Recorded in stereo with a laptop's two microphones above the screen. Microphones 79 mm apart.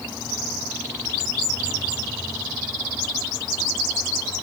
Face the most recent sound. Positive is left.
No sound to turn to.